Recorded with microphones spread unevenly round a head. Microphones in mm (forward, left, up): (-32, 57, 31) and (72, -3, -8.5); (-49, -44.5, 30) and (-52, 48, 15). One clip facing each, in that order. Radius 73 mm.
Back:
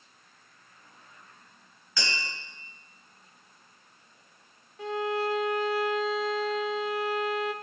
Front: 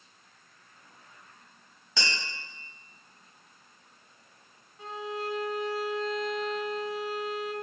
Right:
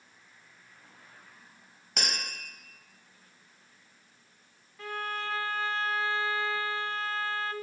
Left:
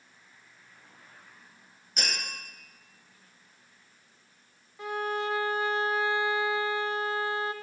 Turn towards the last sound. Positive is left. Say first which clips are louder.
# back 7 dB, left 5 dB
turn(degrees=150)